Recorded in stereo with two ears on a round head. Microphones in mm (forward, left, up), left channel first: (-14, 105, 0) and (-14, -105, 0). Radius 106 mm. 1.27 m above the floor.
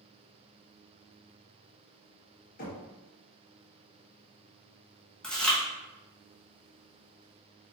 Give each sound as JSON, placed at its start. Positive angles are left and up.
{"t": 2.6, "sound": "knocking", "side_deg": 35, "distance_m": 0.8}
{"t": 5.2, "sound": "chewing", "side_deg": 5, "distance_m": 0.7}